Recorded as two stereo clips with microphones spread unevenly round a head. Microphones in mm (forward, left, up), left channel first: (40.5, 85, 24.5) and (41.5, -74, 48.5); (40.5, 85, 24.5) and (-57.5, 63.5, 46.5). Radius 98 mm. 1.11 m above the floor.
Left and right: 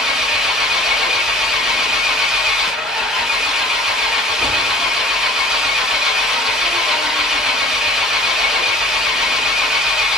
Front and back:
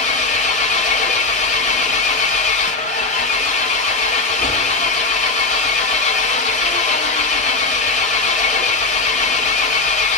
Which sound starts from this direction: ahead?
An engine running, at 0.0 s.